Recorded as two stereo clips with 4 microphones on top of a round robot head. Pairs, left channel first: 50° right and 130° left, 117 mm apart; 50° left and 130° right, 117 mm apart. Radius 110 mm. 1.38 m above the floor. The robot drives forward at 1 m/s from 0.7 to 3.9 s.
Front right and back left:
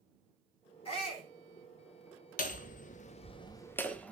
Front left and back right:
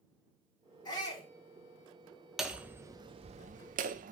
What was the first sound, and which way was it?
A shout, 5° right.